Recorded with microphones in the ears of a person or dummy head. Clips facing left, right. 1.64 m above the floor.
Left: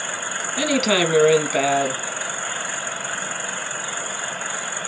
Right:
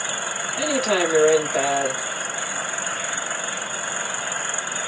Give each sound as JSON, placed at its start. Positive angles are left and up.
{"t": 0.6, "sound": "a woman speaking", "side_deg": 35, "distance_m": 0.8}